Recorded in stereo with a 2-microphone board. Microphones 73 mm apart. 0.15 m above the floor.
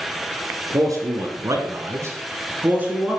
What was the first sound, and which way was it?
A man speaking, 50° right (ahead or behind).